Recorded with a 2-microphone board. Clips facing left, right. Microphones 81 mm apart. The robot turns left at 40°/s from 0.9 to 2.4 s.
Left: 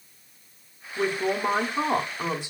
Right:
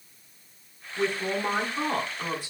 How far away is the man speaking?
About 0.7 m.